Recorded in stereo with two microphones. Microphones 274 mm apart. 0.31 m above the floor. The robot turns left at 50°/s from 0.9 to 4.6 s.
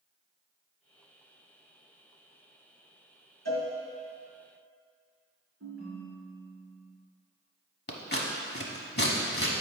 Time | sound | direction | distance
3.5 | a cowbell | 70° left (ahead or behind) | 2 m
5.6 | a ringtone | 60° right (ahead or behind) | 2 m
7.9 | scissors | 40° left (ahead or behind) | 0.9 m